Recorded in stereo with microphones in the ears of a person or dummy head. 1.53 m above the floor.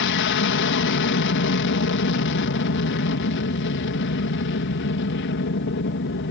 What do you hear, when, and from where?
0.0 s an aircraft: 55° left (ahead or behind)